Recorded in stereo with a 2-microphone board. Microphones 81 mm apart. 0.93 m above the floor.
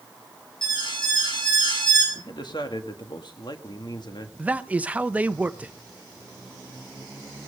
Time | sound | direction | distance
0.6 | an alarm | 65° left (ahead or behind) | 7.5 m
2.1 | a man speaking | 60° left (ahead or behind) | 1.5 m
4.4 | a man speaking | 15° right (ahead or behind) | 0.8 m